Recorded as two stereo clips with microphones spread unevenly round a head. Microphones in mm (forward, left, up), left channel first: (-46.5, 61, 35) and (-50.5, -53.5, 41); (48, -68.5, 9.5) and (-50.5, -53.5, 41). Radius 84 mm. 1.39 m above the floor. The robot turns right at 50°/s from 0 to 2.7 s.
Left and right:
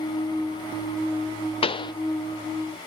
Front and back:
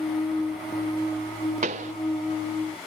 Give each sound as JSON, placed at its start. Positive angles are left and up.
{"t": 1.6, "sound": "a pop", "azimuth_deg": 130}